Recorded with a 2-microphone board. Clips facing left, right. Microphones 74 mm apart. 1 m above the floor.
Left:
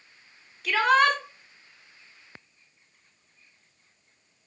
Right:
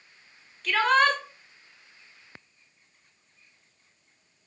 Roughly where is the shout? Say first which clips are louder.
Left 1 dB; centre.